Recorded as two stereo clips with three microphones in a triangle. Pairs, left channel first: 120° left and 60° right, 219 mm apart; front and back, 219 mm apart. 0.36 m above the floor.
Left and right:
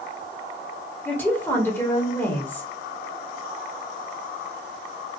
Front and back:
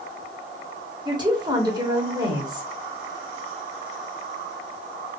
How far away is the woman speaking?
About 1.2 m.